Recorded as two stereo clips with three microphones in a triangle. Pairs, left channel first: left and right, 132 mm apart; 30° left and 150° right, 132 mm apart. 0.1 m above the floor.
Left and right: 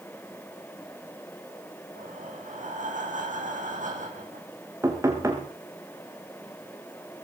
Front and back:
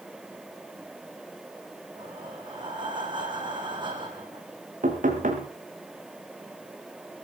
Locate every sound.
1.9 s breathing: 100° right, 5.5 m
4.8 s knocking: 160° right, 5.5 m